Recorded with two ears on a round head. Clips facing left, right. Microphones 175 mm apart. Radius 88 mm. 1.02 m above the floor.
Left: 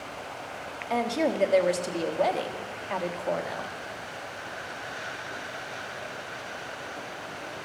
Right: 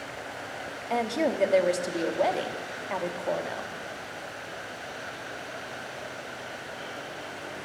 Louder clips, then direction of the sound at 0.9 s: Even; centre (ahead or behind).